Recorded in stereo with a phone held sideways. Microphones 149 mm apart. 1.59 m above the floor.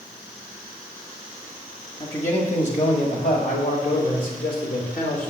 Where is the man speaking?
45° left (ahead or behind), 2.5 m; by 5.3 s 70° left (ahead or behind), 3.5 m.